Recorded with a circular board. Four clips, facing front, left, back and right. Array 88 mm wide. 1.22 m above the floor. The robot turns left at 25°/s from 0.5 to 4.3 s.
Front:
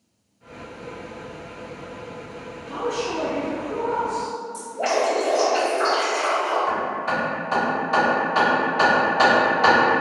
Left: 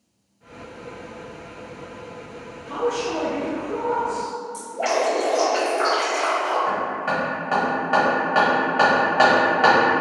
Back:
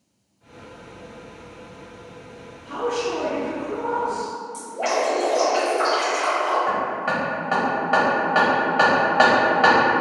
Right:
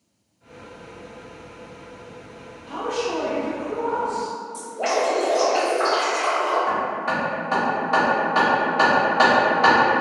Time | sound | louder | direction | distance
2.6 | a man speaking | left 2 dB, back 2 dB | 120° left | 2.0 m
4.5 | dripping | even, even | 130° left | 1.4 m
6.7 | hammering | even, back 1 dB | 145° left | 1.3 m